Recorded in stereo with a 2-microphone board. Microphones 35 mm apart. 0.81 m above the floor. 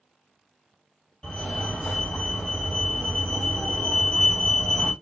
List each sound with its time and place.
1.2 s a fire alarm: 15° left (ahead or behind), 1.9 m